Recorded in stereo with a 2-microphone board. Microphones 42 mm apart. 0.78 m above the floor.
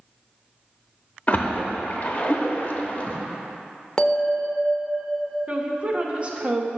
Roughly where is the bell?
Centre.